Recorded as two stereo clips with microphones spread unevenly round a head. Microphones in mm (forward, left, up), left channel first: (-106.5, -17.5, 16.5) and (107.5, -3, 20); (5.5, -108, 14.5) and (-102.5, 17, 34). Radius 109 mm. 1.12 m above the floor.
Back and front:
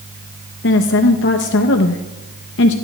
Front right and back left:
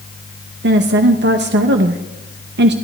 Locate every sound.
0.6 s a woman speaking: 150° left, 0.8 m